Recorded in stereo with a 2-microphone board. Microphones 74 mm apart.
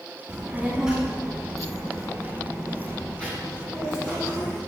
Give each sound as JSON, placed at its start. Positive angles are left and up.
{"t": 0.3, "sound": "a child speaking", "side_deg": -15, "distance_m": 3.0}